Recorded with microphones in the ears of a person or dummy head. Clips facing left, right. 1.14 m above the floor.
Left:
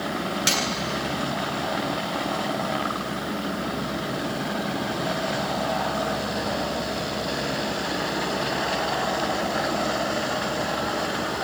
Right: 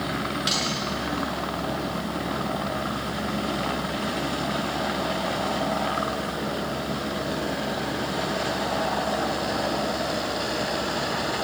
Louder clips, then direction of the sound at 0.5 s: Left 2 dB; 35° left (ahead or behind).